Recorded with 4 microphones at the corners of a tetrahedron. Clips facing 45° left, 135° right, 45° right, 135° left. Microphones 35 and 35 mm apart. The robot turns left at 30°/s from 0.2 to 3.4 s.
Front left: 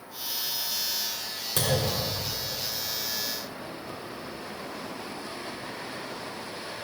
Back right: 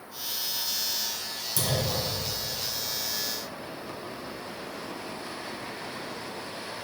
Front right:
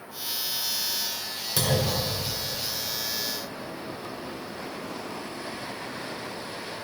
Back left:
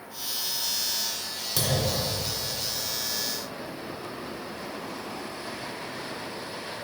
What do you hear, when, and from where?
1.6 s a clunk: 45° left, 1.9 m; by 2.2 s 25° left, 1.9 m